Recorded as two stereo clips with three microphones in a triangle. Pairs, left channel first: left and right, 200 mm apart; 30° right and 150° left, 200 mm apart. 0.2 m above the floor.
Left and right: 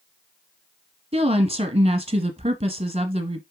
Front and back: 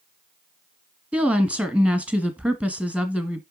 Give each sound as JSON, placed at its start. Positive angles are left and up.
{"t": 1.1, "sound": "a woman speaking", "azimuth_deg": -130, "distance_m": 1.3}